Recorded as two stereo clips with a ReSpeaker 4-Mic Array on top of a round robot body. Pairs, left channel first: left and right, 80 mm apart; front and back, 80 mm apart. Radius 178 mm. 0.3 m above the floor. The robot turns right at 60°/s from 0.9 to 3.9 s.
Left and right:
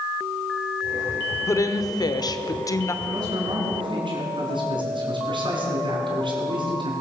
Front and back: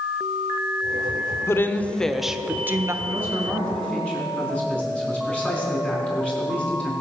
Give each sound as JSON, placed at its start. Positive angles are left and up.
{"t": 1.5, "sound": "a woman speaking", "azimuth_deg": 45, "distance_m": 1.2}
{"t": 3.0, "sound": "a man speaking", "azimuth_deg": -130, "distance_m": 4.5}